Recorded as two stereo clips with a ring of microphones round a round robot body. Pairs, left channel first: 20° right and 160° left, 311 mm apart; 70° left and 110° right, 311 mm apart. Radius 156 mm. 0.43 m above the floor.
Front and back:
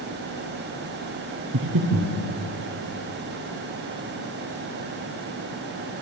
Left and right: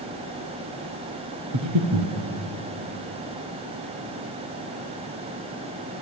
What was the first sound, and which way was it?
Breathing, 150° right.